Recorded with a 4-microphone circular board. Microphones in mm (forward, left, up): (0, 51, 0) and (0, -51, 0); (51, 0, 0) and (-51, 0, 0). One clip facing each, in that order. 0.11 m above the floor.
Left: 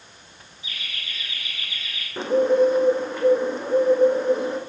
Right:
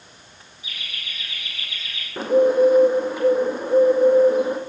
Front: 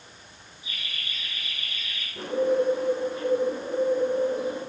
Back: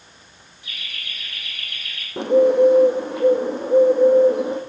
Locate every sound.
0.6 s laughter: 175° left, 4 m
2.2 s a bird: 175° right, 1.6 m